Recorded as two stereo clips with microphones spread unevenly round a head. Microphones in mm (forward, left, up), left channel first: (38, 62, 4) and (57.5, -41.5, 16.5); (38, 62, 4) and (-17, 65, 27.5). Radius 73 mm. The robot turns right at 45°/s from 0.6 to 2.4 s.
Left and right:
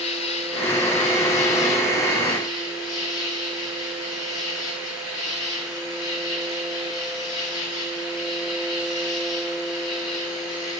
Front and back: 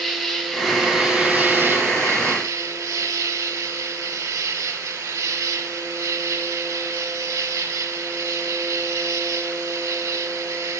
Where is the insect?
85° left, 1.8 m; by 10.8 s 165° left, 1.8 m.